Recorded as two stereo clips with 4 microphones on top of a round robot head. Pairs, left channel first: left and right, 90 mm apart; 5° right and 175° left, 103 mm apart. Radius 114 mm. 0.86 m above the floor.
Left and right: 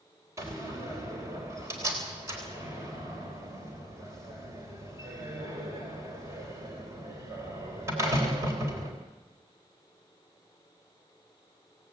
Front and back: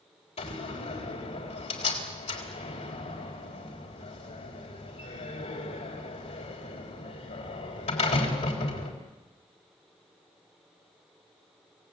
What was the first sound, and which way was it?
A door slam, 25° right.